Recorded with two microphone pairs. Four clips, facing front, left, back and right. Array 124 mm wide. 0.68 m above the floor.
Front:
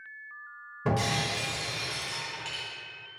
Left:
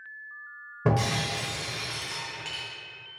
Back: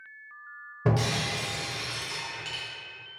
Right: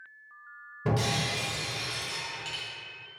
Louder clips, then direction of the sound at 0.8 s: Left 3 dB, back 1 dB; 110° left.